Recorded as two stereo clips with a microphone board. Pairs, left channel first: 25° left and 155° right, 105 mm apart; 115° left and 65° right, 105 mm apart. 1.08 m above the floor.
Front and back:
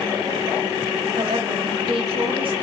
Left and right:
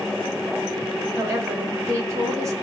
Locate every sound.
1.1 s a woman speaking: 125° right, 0.9 m